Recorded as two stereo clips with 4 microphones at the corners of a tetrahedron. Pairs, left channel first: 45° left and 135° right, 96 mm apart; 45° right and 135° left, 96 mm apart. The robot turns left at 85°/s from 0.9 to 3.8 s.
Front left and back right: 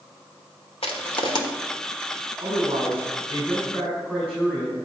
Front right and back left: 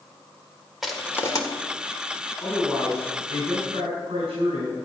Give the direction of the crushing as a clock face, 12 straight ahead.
10 o'clock.